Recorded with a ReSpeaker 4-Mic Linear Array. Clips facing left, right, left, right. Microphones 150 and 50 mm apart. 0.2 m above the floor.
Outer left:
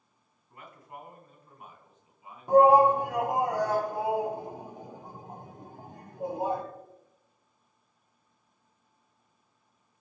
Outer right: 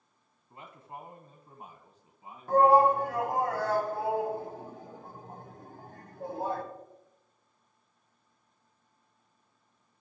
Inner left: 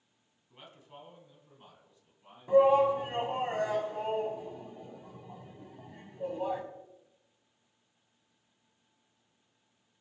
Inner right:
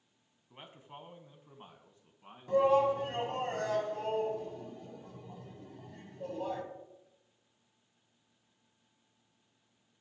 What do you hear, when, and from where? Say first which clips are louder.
0.5 s a man speaking: outer right 1 dB, inner right 1 dB; 25° right (ahead or behind), 1.5 m; by 3.5 s 35° right (ahead or behind), 2.5 m
2.5 s a shout: outer left 3 dB, inner left 4 dB; 15° left (ahead or behind), 1.6 m